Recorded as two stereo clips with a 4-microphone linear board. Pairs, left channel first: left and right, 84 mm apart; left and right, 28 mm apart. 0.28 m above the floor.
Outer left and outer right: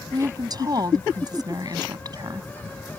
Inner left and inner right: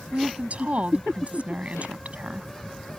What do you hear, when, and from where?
0.1 s a woman speaking: 50° right (ahead or behind)